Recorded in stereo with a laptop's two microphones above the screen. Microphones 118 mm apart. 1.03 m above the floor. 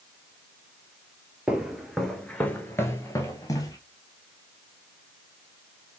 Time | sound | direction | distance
1.5 | footsteps | 10° right (ahead or behind) | 1.1 m